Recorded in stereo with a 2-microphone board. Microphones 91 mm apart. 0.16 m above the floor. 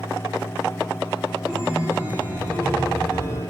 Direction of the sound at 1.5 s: 20° right (ahead or behind).